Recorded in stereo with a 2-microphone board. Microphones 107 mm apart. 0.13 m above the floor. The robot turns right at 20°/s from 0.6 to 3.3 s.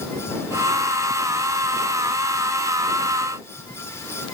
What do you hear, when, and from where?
Only background noise.